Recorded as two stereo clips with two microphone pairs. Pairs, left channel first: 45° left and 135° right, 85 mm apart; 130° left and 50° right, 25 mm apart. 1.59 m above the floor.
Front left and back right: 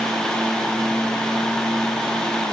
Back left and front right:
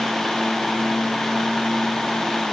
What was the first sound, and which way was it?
Only background noise.